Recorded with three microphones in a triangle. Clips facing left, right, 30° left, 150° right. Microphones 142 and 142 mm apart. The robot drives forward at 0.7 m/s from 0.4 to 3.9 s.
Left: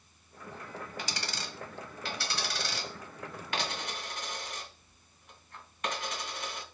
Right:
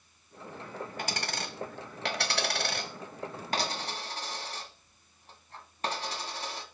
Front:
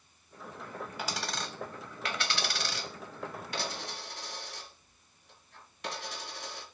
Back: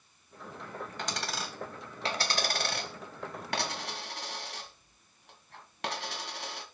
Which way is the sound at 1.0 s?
50° right.